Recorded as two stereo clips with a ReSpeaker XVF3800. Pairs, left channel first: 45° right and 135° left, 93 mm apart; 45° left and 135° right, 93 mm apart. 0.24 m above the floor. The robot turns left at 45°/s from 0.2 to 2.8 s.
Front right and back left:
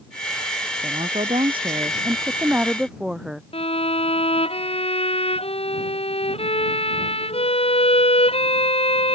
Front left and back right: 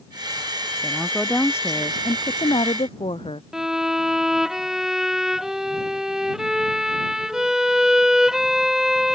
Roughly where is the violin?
Ahead right.